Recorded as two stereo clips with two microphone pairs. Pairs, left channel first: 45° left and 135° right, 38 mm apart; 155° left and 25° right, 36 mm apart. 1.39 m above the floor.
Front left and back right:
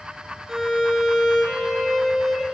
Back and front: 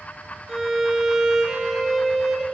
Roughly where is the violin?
Right.